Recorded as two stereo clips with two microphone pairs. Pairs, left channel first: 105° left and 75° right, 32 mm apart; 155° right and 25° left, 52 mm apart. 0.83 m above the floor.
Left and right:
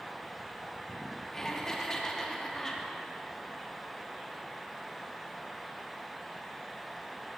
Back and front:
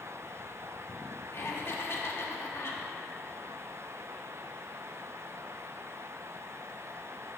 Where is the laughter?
175° left, 1.5 m.